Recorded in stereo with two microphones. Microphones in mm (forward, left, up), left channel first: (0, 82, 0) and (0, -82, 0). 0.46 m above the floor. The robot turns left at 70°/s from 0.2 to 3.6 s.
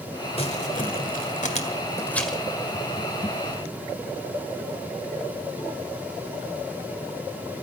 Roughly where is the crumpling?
Left.